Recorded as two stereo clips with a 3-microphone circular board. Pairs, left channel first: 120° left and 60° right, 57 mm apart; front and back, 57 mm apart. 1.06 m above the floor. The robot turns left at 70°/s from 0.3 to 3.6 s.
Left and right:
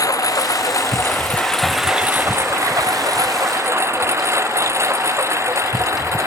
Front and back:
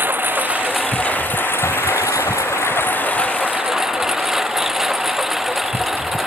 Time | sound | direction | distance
0.0 | a lawn mower | 125° left | ?